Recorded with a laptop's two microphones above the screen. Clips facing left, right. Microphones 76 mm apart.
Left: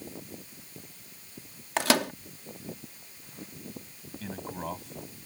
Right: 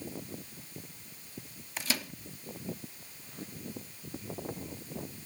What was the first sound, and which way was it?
A microwave, 70° left (ahead or behind).